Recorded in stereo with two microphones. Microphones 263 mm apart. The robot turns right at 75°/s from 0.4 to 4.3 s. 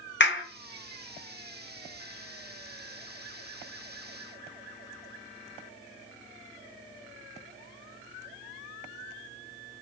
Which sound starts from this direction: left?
A clap, at 0.2 s.